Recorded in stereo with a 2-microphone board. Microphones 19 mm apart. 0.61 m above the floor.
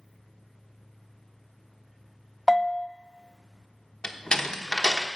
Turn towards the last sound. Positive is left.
turn(degrees=50)  # may be behind; listen again after turning